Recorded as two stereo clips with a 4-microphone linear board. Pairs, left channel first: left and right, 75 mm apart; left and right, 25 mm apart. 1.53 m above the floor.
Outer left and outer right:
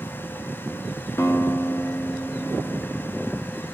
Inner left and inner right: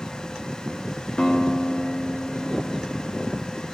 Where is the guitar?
35° left (ahead or behind), 0.7 m.